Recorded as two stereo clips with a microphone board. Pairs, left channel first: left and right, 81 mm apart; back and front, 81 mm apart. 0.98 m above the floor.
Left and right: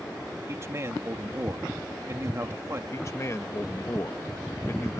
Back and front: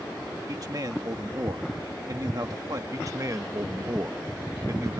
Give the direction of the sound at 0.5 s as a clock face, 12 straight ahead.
1 o'clock.